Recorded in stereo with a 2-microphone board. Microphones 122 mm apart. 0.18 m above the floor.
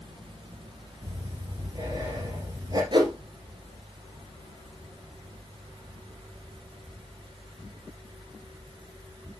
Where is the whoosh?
40° right (ahead or behind), 1.1 m.